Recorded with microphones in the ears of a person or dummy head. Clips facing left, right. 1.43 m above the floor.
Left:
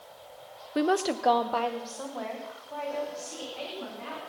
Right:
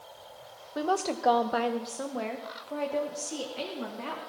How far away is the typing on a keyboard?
I don't hear typing on a keyboard.